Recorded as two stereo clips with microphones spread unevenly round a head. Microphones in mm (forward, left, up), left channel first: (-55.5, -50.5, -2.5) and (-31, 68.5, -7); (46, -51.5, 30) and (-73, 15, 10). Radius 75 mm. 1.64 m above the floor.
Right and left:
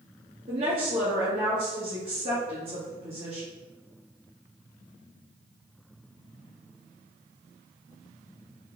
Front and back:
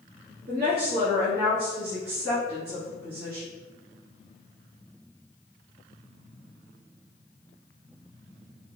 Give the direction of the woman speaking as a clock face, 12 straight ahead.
8 o'clock.